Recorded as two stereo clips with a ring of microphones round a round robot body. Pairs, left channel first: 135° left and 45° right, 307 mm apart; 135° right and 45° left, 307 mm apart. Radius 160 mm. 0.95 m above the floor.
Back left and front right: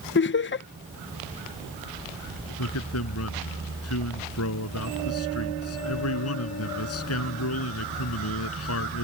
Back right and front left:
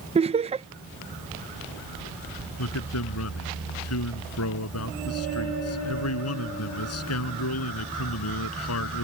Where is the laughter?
105° left.